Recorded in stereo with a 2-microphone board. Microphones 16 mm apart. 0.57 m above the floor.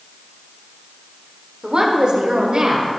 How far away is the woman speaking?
About 1.2 m.